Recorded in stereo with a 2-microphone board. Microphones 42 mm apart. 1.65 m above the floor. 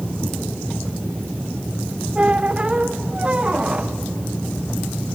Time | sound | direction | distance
2.1 | a squeak | 30° right (ahead or behind) | 0.6 m